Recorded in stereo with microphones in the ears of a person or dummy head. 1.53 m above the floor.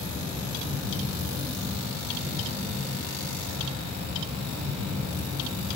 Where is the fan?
55° right (ahead or behind), 1.3 m.